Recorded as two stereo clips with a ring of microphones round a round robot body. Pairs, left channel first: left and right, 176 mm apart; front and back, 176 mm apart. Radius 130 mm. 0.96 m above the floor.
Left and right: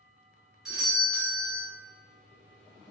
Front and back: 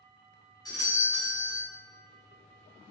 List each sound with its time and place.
0.7 s a doorbell: 5° right, 1.1 m